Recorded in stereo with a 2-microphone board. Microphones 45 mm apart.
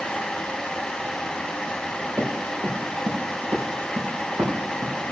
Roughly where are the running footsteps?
Right.